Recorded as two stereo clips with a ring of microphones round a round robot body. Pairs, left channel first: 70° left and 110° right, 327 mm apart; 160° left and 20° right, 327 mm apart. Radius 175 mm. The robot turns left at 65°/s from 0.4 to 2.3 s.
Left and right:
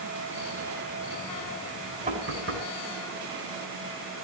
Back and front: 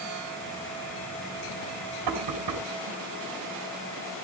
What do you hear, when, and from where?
2.1 s knocking: 45° right, 4 m; by 2.7 s 60° right, 4 m